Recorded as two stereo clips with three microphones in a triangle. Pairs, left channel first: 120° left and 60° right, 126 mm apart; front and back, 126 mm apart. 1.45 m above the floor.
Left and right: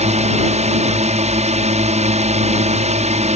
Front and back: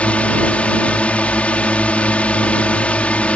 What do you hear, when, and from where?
0.0 s a drone: 80° right